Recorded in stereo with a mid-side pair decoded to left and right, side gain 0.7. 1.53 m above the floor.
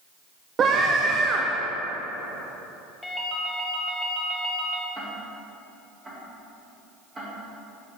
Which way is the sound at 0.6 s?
35° right.